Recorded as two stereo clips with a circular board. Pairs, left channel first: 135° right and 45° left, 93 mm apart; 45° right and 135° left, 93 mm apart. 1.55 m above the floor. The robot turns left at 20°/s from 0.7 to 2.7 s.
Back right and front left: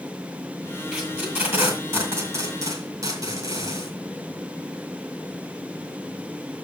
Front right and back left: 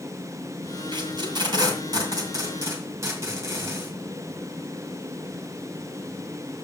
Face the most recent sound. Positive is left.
turn(degrees=80)